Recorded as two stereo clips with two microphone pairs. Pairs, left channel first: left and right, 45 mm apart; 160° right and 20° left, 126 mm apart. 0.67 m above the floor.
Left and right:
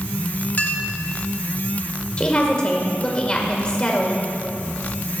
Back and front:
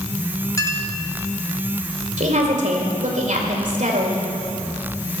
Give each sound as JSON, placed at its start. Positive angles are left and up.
{"t": 0.6, "sound": "a clink", "azimuth_deg": 140, "distance_m": 1.0}
{"t": 2.2, "sound": "a woman speaking", "azimuth_deg": 25, "distance_m": 2.0}